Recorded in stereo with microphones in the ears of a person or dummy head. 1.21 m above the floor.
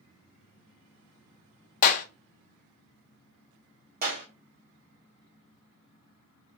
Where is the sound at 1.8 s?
45° left (ahead or behind), 0.5 m.